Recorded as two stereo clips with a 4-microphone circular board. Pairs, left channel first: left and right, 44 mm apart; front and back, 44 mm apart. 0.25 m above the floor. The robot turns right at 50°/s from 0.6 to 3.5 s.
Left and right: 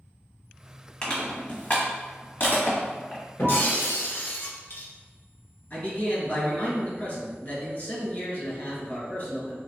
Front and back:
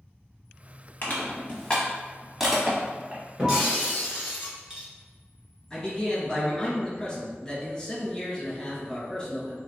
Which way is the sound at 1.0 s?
25° left.